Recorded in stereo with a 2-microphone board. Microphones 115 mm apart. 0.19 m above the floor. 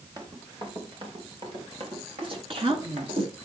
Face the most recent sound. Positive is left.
turn(degrees=-50)  # may be behind; listen again after turning